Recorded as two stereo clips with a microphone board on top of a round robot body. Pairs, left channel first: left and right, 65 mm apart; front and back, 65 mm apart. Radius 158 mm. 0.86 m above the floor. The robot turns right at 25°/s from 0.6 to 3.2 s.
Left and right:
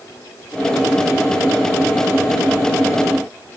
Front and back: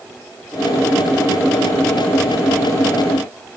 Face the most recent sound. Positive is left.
No sound to turn to.